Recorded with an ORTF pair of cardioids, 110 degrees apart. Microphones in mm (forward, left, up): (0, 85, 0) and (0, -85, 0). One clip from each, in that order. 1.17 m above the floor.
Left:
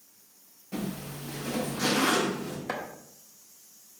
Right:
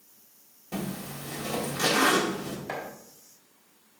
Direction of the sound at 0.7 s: 40° right.